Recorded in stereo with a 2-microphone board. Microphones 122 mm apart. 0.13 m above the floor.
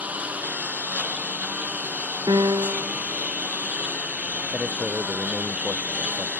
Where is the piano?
35° right (ahead or behind).